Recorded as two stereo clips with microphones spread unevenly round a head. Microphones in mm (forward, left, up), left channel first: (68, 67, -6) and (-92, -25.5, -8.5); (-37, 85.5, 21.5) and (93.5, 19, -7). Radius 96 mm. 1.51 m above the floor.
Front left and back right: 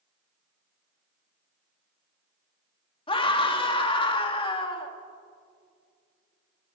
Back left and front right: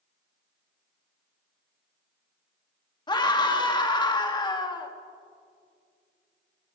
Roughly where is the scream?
Left.